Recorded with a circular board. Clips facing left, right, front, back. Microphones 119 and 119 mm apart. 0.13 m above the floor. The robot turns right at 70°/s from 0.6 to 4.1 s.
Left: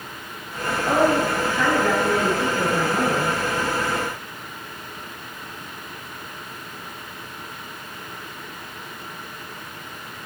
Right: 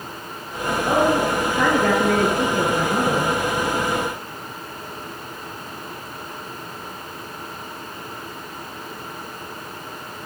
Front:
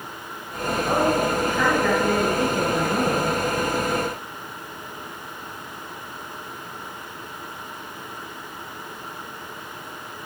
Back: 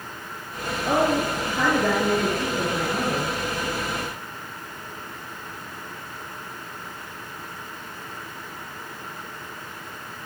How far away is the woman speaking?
About 3 m.